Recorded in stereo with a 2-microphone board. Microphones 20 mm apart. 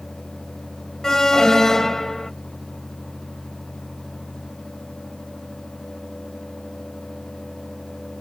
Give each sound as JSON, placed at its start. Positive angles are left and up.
{"t": 1.0, "sound": "an alarm", "side_deg": 30}